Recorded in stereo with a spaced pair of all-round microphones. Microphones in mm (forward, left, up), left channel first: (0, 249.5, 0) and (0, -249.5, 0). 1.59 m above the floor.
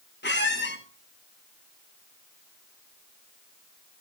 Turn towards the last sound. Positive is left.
turn(degrees=20)  # may be behind; listen again after turning